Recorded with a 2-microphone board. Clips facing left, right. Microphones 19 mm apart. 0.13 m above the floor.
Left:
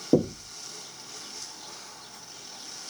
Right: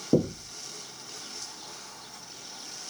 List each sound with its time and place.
0.1 s knocking: 35° left (ahead or behind), 1.2 m